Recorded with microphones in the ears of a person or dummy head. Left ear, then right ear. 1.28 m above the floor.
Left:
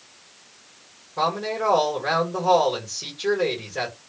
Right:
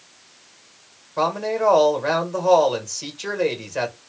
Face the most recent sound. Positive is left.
turn(degrees=-40)  # may be behind; listen again after turning